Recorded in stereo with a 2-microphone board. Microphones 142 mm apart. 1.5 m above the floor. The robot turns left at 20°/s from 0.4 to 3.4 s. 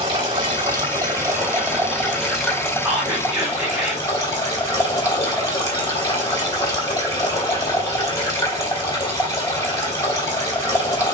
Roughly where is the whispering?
Centre.